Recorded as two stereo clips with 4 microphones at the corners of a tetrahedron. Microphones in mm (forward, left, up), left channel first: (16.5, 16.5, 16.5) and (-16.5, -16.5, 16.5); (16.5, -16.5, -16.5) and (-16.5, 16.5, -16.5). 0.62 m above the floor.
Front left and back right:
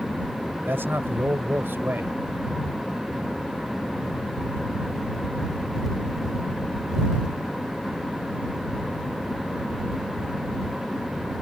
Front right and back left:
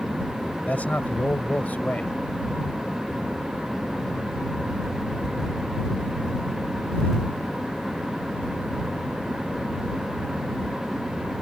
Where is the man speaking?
100° right.